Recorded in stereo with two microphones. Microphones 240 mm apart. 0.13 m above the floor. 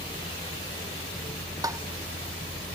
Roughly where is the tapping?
Centre.